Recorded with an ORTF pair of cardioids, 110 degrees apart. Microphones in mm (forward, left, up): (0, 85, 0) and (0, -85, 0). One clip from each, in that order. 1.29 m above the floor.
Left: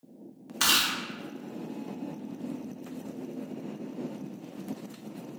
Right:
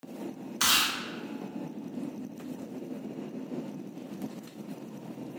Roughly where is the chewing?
Ahead.